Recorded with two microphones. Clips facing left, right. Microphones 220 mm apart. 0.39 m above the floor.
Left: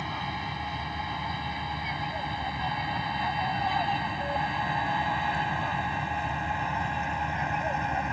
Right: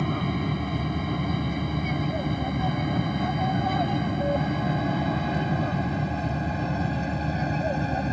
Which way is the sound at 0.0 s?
55° right (ahead or behind).